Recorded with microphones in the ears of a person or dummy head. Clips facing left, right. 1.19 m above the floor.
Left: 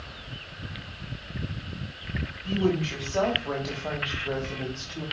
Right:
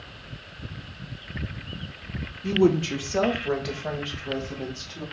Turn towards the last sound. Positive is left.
turn(degrees=15)  # may be behind; listen again after turning